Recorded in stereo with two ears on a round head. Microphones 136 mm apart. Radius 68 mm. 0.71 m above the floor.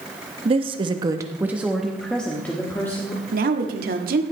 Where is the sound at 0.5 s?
35° right (ahead or behind), 0.9 m; by 3.2 s 15° left (ahead or behind), 1.8 m.